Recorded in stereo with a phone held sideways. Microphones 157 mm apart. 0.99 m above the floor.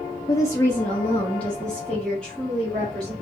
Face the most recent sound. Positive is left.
turn(degrees=5)  # may be behind; listen again after turning